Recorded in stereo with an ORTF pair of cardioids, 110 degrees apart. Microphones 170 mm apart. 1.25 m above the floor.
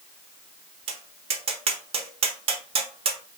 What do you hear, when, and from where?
0.9 s tapping: 35° right, 0.6 m